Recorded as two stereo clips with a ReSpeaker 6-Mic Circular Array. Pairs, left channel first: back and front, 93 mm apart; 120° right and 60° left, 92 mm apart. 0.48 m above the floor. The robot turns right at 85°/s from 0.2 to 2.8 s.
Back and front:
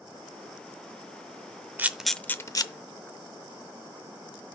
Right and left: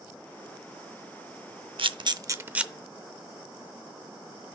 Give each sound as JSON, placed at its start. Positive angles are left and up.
{"t": 1.8, "sound": "a camera shutter", "azimuth_deg": 65, "distance_m": 0.5}